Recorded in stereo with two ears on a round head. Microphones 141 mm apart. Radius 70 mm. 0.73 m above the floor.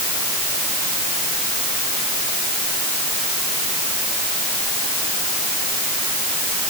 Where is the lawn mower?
No lawn mower in this recording.